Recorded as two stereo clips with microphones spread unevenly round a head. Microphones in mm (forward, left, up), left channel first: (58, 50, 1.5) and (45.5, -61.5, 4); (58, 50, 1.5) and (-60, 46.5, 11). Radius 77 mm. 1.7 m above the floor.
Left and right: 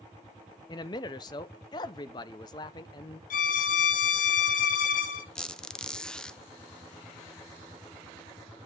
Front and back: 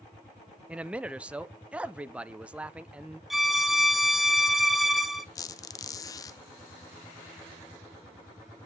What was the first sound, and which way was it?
A man speaking, 115° left.